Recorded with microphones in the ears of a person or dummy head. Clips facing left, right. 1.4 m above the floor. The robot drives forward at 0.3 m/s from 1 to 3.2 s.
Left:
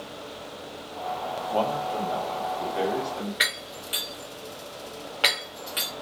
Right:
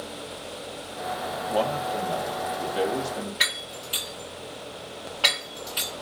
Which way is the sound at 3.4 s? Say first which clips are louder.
Even; 30° left (ahead or behind).